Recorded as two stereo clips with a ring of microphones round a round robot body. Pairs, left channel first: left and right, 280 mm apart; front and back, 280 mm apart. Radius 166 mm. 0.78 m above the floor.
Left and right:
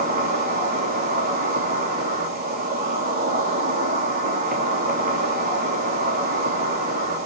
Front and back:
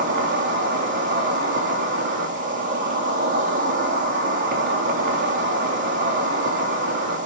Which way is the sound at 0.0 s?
140° right.